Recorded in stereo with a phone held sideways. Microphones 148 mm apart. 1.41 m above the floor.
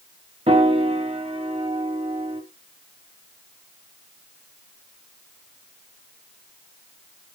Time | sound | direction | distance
0.5 | a piano | 40° right (ahead or behind) | 1.3 m